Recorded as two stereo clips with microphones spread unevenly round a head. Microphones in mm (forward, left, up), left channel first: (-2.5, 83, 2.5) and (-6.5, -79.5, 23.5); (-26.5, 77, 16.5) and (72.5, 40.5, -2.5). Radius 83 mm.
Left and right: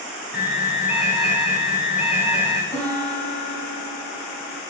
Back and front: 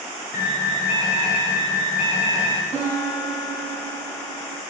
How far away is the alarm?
About 2.5 m.